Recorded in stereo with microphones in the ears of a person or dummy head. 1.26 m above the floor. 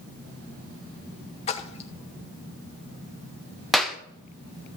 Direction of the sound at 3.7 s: Centre (ahead or behind).